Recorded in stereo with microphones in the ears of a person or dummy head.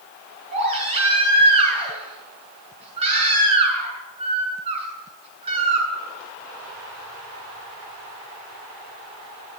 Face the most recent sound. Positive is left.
turn(degrees=-35)  # may be behind; listen again after turning